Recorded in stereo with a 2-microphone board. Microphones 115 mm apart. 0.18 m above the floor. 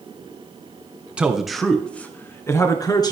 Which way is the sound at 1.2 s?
10° right (ahead or behind).